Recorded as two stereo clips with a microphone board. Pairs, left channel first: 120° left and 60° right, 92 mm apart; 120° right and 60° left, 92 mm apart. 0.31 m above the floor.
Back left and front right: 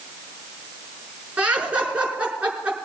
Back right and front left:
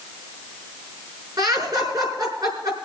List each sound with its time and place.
1.4 s laughter: 15° left, 5 m